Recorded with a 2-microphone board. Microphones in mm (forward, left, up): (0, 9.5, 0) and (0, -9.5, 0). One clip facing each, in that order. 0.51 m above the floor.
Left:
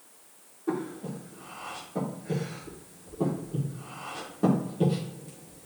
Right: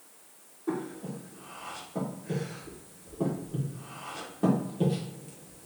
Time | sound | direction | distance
0.7 | breathing | centre (ahead or behind) | 1.5 m